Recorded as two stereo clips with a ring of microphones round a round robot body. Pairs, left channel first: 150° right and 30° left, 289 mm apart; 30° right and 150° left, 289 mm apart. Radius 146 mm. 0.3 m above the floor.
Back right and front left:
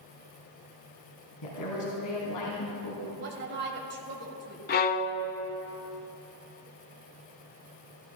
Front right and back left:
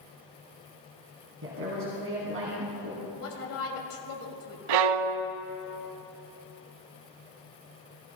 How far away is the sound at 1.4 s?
About 2.5 m.